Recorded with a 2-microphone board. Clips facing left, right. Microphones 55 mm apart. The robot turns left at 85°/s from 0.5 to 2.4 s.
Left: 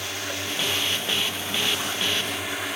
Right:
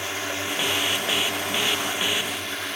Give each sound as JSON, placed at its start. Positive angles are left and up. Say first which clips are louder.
{"t": 0.0, "sound": "a drone", "louder": "right 2 dB", "azimuth_deg": -30}